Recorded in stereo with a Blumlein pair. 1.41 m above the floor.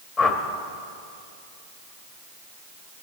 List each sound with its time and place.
0.2 s a whoosh: 25° left, 0.9 m